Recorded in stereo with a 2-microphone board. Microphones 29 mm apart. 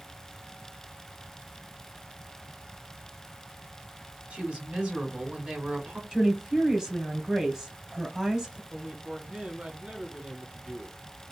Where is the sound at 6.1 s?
20° right (ahead or behind), 1.1 m.